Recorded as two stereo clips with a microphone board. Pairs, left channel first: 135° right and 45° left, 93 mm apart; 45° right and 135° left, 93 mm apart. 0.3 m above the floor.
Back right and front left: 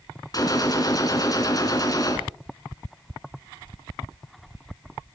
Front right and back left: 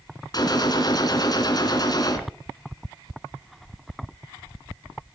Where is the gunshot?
90° right, 2.5 m.